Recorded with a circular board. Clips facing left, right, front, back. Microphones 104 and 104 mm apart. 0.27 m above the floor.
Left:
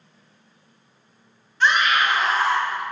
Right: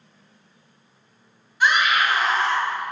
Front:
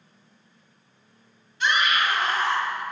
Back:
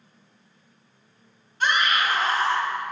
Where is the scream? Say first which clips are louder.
Even, even; 165° right, 1.5 m; by 2.8 s 165° left, 1.2 m.